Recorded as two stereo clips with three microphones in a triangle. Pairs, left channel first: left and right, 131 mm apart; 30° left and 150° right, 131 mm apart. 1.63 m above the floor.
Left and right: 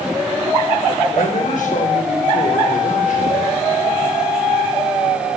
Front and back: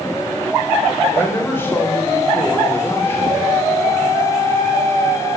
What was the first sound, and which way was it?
A man speaking, 105° left.